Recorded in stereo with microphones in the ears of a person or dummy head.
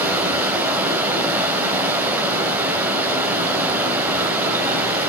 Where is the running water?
10° right (ahead or behind), 2.5 m.